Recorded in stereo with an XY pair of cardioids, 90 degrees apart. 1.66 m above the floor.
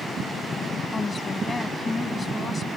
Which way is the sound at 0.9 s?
30° left.